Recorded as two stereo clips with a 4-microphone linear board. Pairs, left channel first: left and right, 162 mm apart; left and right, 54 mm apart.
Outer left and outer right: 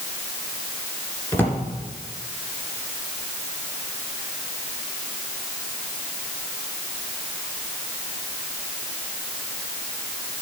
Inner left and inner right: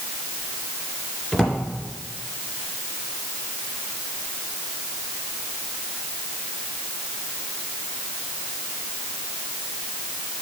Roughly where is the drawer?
Centre.